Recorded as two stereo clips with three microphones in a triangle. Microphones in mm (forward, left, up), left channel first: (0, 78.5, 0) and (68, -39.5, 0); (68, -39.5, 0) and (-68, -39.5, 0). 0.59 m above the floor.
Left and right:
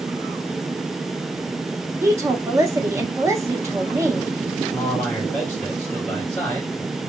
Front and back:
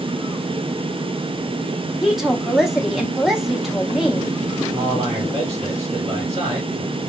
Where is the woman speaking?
95° right, 0.6 m.